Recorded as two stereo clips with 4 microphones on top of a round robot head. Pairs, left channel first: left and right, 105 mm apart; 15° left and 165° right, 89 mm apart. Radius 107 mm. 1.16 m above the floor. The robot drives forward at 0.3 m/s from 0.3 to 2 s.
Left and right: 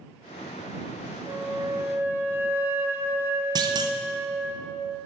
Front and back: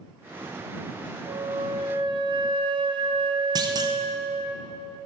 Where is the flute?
150° right, 1.0 m; by 4.5 s 155° right, 1.2 m.